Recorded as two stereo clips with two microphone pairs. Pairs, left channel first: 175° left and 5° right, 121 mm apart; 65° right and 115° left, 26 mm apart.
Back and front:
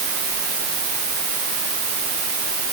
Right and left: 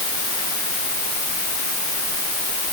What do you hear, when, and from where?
Only background noise.